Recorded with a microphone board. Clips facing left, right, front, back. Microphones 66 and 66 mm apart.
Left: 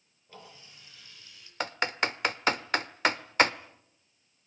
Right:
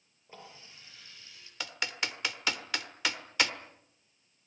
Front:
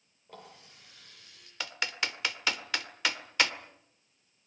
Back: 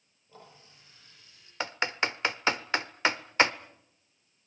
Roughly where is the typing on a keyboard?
Behind left.